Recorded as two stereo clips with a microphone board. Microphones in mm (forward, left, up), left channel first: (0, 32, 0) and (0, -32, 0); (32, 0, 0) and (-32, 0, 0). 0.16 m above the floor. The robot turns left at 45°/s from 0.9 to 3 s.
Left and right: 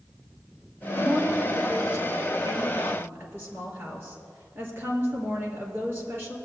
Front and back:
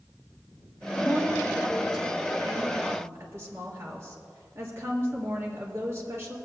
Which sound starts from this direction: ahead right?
A woman speaking, at 1.0 s.